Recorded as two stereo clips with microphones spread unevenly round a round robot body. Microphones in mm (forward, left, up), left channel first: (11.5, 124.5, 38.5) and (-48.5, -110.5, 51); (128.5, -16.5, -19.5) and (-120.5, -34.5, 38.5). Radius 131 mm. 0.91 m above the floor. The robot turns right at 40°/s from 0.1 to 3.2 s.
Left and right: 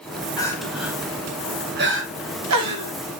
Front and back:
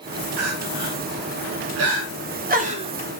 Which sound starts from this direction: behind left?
Crying, at 0.4 s.